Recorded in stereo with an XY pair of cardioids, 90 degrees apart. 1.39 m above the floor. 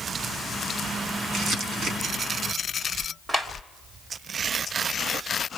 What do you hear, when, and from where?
1.3 s crumpling: 65° right, 5.5 m
3.3 s a clap: 25° right, 3.5 m